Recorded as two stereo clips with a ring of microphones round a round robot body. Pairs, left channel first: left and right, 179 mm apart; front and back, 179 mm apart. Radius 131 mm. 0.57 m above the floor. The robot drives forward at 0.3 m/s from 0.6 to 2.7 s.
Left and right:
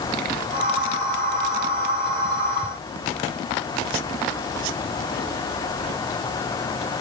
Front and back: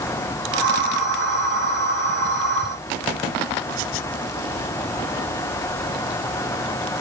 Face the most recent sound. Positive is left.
No sound to turn to.